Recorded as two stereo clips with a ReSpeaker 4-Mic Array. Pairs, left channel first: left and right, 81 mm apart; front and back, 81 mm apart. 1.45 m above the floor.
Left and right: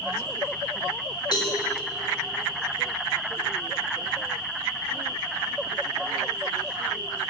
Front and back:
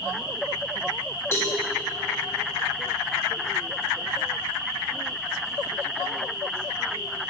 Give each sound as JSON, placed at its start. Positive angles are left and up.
{"t": 1.3, "sound": "a cowbell", "azimuth_deg": 55, "distance_m": 1.9}